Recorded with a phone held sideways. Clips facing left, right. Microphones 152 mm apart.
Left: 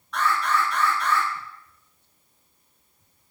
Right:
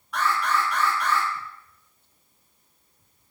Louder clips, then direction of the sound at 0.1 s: Left 1 dB; 10° right (ahead or behind).